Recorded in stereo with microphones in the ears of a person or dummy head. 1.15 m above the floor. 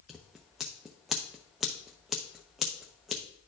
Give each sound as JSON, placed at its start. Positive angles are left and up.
{"t": 0.1, "sound": "scissors", "side_deg": 0, "distance_m": 0.5}